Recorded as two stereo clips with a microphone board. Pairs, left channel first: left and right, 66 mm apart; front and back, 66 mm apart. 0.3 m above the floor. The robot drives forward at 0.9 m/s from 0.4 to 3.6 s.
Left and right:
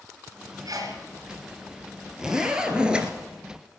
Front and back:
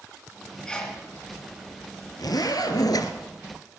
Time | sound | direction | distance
0.7 | a sneeze | 75° right | 3 m
2.2 | a zipper | 10° right | 2.5 m